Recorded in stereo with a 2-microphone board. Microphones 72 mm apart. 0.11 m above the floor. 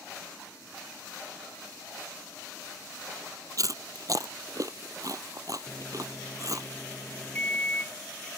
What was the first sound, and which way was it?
Chewing, 55° right (ahead or behind).